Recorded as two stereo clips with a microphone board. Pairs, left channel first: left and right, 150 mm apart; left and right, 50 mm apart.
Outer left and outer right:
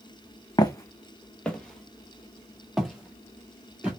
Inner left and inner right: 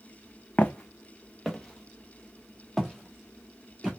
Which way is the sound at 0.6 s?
30° left (ahead or behind).